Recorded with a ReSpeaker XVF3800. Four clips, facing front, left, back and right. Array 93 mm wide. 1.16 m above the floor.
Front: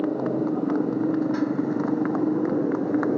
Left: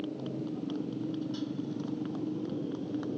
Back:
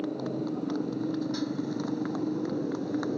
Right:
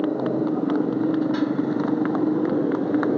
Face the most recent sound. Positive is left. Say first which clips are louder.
# right 14 dB, front 8 dB
turn(degrees=-60)